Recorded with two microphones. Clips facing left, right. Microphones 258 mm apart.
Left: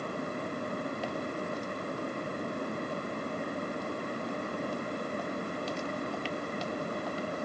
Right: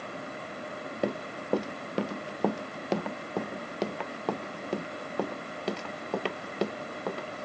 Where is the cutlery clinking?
No cutlery clinking in this recording.